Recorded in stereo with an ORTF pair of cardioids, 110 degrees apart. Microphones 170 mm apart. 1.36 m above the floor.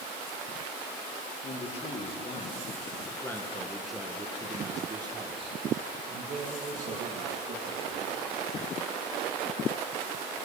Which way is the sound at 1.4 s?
45° left.